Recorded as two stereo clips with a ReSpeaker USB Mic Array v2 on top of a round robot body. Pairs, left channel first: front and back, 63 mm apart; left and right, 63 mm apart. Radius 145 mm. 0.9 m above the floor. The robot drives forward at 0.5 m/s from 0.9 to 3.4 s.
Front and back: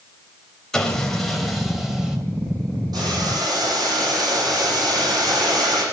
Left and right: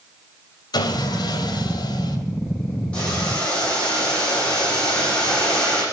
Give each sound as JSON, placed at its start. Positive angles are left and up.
{"t": 0.7, "sound": "sawing", "azimuth_deg": 85, "distance_m": 2.5}
{"t": 2.9, "sound": "boiling", "azimuth_deg": 160, "distance_m": 9.5}